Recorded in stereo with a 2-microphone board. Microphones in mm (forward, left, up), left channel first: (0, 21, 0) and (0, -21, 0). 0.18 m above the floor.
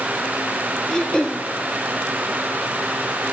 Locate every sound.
0.9 s throat clearing: 20° left (ahead or behind), 1.2 m